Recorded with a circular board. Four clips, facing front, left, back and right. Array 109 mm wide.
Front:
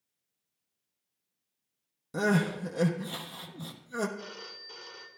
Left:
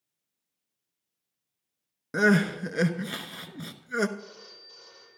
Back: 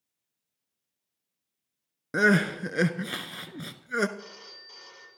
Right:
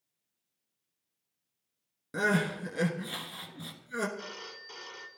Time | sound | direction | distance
2.1 | crying | 155° left | 0.9 m
4.2 | a phone ringing | 85° right | 1.8 m